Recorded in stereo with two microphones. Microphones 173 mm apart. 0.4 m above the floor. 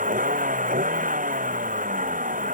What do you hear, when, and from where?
0.0 s a vehicle: 50° right (ahead or behind)